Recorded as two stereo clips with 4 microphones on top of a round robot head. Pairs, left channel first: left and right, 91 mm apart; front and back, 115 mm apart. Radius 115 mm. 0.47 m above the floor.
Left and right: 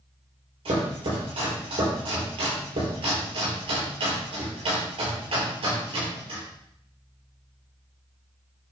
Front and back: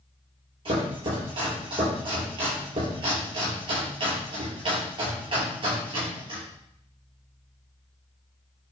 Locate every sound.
0.7 s chopping: 125° right, 6.5 m